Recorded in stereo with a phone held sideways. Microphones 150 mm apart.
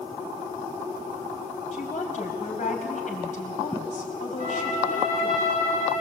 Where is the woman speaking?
55° left (ahead or behind), 4 m.